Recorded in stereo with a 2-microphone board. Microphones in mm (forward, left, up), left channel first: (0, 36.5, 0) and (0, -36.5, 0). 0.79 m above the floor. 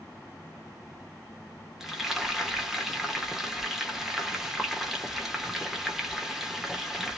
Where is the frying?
5° right (ahead or behind), 1.1 m.